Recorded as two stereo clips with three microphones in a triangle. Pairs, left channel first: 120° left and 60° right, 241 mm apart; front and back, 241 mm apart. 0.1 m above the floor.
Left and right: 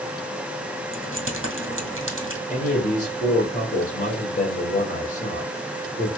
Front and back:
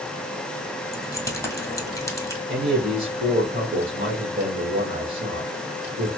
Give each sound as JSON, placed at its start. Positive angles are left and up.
{"t": 0.9, "sound": "keys jangling", "azimuth_deg": -75, "distance_m": 1.7}
{"t": 2.5, "sound": "a man speaking", "azimuth_deg": 155, "distance_m": 1.7}